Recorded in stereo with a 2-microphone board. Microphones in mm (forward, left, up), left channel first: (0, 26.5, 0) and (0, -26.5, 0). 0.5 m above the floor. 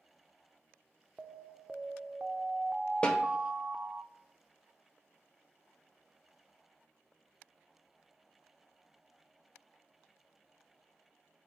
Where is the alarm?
20° right (ahead or behind), 0.5 m.